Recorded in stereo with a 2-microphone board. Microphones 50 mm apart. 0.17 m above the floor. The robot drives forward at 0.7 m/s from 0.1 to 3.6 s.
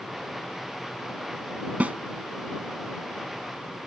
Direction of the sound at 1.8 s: 30° right (ahead or behind).